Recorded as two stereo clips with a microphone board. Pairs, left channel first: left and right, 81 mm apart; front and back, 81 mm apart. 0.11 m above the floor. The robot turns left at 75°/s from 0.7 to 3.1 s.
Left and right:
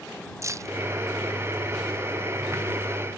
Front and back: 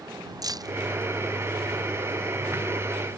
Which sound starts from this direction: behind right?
Keys jangling, at 0.4 s.